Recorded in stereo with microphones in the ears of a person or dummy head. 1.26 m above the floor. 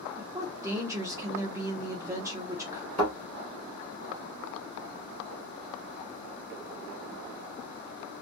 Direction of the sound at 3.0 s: Centre (ahead or behind).